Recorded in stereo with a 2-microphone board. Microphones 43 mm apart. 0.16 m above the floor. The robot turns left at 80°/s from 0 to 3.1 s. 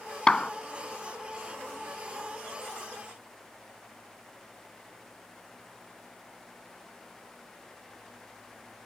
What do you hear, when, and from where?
0.3 s a clap: 20° left (ahead or behind); by 0.5 s 15° left (ahead or behind)